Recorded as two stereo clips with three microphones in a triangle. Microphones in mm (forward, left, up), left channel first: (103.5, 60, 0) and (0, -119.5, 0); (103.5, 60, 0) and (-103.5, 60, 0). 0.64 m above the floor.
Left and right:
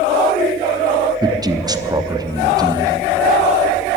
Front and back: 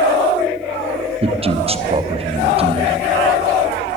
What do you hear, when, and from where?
1.2 s a man speaking: 170° right, 0.7 m